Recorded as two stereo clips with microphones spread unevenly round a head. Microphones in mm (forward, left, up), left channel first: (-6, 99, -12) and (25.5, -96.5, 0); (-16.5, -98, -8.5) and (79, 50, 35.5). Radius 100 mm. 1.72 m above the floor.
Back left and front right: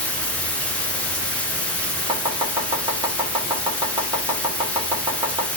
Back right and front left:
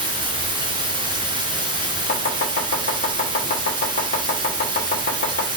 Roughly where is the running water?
Ahead.